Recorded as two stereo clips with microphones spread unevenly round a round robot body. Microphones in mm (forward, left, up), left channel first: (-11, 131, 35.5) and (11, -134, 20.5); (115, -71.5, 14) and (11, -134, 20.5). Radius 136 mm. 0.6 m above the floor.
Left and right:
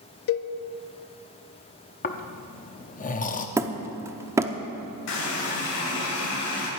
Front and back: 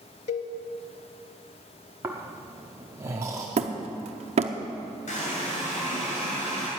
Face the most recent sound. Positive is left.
turn(degrees=65)